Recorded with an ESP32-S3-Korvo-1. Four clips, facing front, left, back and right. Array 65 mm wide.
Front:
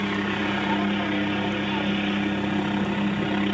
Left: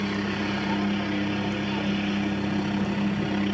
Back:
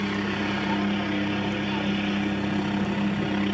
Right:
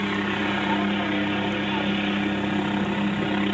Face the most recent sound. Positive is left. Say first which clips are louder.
# right 3 dB, front 2 dB
turn(degrees=-60)